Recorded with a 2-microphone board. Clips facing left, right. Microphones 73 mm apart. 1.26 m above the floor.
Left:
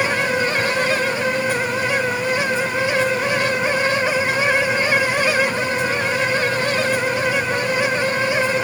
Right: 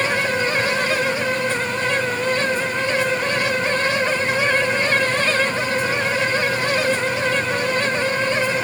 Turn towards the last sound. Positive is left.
No sound to turn to.